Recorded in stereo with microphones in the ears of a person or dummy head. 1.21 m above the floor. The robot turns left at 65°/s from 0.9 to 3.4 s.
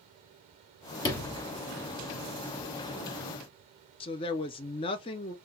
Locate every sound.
1.0 s a sliding door: 25° left (ahead or behind), 1.3 m; by 1.4 s centre (ahead or behind), 1.3 m
4.0 s a woman speaking: 30° left (ahead or behind), 0.5 m